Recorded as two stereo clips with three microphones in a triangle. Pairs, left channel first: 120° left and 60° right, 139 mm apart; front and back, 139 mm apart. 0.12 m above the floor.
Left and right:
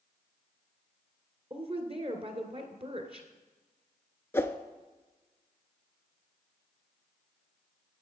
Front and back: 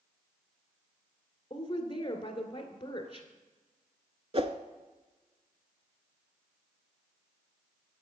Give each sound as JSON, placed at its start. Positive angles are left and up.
{"t": 1.5, "sound": "a woman speaking", "azimuth_deg": -40, "distance_m": 1.7}
{"t": 4.3, "sound": "a whoosh", "azimuth_deg": -175, "distance_m": 0.6}